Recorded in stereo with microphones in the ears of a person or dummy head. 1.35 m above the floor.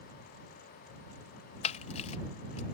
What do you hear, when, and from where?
1.6 s a camera shutter: 40° left (ahead or behind)